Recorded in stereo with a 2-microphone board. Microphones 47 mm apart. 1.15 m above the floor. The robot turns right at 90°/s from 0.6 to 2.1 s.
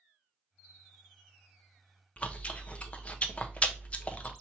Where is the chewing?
25° left (ahead or behind), 0.5 m.